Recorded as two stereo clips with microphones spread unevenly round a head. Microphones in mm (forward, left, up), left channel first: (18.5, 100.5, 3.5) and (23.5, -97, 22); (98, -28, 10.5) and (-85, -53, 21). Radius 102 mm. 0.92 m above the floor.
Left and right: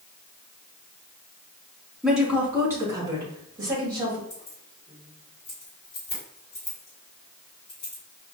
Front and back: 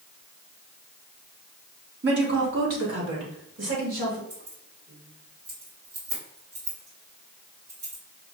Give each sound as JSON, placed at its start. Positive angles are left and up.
{"t": 2.0, "sound": "a woman speaking", "azimuth_deg": 180, "distance_m": 1.2}
{"t": 4.3, "sound": "keys jangling", "azimuth_deg": 160, "distance_m": 2.5}